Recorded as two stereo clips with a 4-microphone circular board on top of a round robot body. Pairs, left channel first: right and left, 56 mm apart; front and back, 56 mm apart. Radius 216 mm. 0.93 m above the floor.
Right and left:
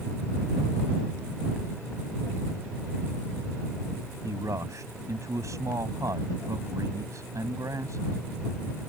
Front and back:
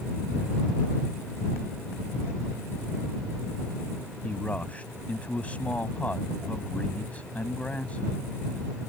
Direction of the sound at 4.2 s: 65° left.